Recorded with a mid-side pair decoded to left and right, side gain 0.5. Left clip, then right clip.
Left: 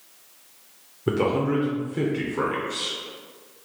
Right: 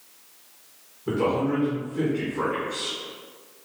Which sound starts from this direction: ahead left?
A man speaking, at 1.1 s.